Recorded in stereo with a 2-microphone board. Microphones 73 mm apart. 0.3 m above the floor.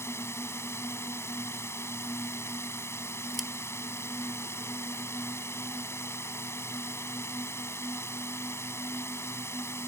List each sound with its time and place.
0.0 s a drone: 35° left (ahead or behind)
3.3 s scissors: centre (ahead or behind)